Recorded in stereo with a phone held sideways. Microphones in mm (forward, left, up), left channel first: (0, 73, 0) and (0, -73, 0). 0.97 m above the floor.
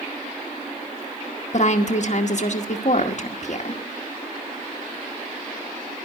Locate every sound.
1.5 s a woman speaking: 55° left (ahead or behind), 1.2 m